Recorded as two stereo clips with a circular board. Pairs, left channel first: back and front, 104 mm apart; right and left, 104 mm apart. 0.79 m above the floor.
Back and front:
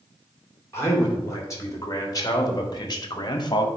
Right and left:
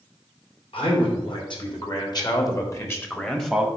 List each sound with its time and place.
0.7 s a man speaking: 120° right, 2.5 m; by 3.7 s 170° left, 1.1 m